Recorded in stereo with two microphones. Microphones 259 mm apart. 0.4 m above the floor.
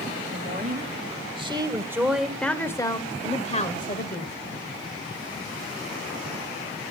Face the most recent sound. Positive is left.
turn(degrees=40)  # may be behind; listen again after turning